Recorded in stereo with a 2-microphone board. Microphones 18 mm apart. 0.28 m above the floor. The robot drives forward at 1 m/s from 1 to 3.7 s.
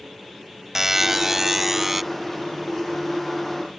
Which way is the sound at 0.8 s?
15° right (ahead or behind).